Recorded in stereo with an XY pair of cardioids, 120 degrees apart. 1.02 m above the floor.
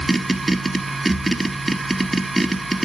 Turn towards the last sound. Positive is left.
turn(degrees=-15)